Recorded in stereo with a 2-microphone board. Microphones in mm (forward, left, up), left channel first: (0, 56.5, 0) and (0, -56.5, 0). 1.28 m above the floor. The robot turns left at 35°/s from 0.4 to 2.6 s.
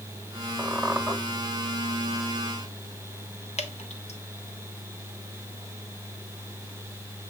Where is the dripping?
75° left (ahead or behind), 1.1 m.